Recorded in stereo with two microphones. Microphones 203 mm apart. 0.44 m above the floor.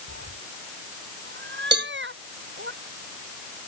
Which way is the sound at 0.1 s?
65° right (ahead or behind).